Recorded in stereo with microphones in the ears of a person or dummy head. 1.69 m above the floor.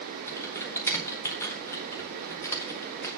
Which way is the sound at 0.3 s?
15° left (ahead or behind).